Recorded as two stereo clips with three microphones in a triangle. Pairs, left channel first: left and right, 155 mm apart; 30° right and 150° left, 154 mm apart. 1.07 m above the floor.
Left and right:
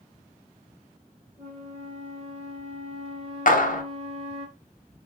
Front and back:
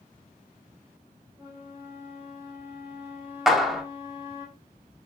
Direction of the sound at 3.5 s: 60° left.